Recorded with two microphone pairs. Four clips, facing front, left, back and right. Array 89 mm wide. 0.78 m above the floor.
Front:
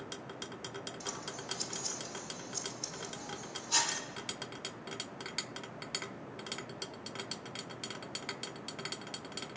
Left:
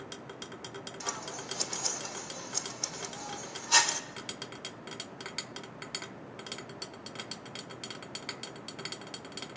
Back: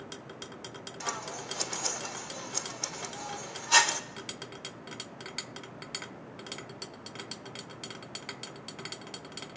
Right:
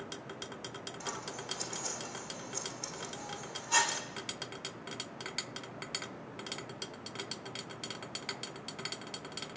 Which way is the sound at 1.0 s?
165° left.